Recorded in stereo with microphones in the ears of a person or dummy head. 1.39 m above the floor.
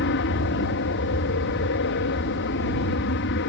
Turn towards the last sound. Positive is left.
turn(degrees=55)  # may be behind; listen again after turning